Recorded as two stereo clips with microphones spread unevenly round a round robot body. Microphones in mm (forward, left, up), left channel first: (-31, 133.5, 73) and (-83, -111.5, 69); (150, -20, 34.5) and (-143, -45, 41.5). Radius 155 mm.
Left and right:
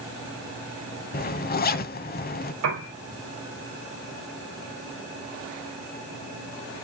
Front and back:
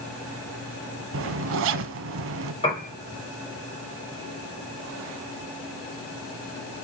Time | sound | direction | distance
1.1 | a zipper | 135° left | 0.8 m
2.6 | a piano | 65° right | 5 m